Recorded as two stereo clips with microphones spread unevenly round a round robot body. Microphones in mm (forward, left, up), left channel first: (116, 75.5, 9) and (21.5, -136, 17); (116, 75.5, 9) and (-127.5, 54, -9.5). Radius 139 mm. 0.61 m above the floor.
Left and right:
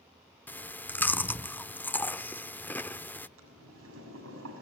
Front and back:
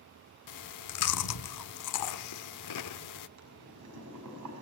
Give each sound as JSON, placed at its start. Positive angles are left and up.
{"t": 0.5, "sound": "chewing", "azimuth_deg": -15, "distance_m": 0.7}
{"t": 3.4, "sound": "boiling", "azimuth_deg": -155, "distance_m": 6.0}